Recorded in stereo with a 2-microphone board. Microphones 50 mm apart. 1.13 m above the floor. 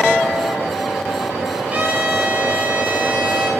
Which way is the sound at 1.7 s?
30° right (ahead or behind).